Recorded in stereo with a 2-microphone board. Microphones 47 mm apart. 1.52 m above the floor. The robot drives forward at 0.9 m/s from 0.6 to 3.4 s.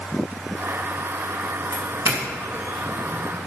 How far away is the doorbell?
About 2.5 m.